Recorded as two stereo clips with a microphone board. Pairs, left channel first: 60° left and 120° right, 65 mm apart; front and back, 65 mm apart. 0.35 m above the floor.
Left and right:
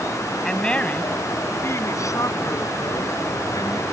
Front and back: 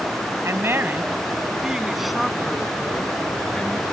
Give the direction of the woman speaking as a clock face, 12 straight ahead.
7 o'clock.